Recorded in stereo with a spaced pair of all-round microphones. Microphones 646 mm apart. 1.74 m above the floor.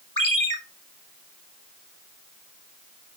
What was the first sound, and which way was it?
A ringtone, 30° left (ahead or behind).